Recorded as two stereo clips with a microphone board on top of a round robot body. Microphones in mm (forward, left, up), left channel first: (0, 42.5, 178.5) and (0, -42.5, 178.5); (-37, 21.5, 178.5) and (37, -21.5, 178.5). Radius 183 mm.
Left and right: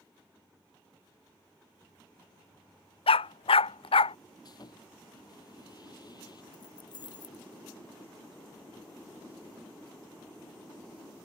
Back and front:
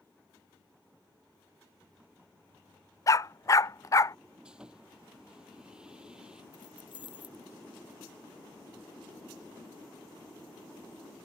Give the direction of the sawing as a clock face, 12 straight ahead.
10 o'clock.